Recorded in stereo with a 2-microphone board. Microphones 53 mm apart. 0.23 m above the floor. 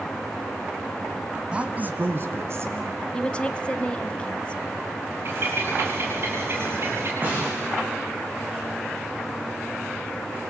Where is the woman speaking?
20° left (ahead or behind), 1.1 m.